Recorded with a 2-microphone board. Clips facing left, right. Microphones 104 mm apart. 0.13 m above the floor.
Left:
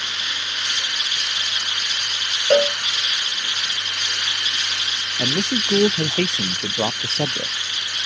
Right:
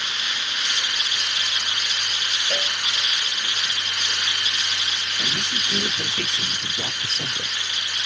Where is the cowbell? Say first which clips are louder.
Left 16 dB; 55° left (ahead or behind).